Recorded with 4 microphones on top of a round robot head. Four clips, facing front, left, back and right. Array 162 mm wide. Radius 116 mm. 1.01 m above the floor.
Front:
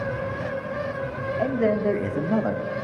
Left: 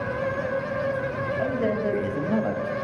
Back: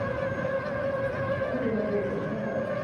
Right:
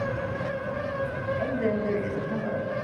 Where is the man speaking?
5° left, 2.5 m; by 2.6 s 40° left, 1.3 m.